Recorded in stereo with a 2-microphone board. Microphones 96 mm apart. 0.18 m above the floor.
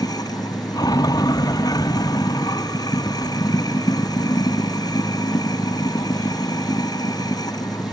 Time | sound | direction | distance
0.0 | running water | 45° left (ahead or behind) | ?